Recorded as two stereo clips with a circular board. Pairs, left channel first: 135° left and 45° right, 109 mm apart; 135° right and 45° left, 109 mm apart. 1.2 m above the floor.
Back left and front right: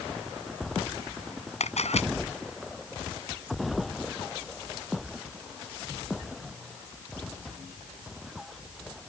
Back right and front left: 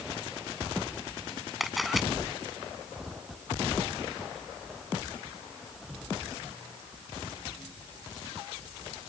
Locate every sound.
1.6 s a camera shutter: 135° left